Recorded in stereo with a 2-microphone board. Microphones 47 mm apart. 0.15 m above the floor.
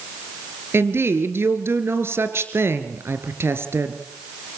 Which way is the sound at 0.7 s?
60° right (ahead or behind).